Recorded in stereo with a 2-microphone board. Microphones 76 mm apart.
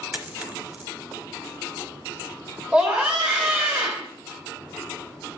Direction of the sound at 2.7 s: 15° right (ahead or behind).